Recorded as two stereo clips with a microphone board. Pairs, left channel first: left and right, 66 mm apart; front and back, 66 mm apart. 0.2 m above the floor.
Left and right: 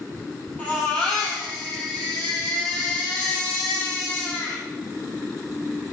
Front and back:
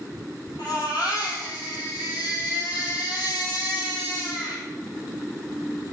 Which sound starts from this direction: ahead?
A baby crying, at 0.6 s.